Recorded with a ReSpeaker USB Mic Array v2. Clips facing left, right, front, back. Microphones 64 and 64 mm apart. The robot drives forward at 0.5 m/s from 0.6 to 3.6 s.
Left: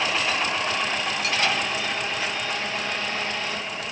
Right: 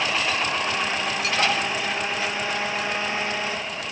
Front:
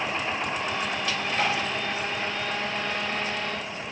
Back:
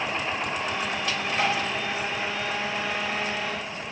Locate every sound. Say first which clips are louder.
1.4 s tapping: right 2 dB, back 1 dB; 95° right, 1.1 m; by 1.6 s 100° right, 1.1 m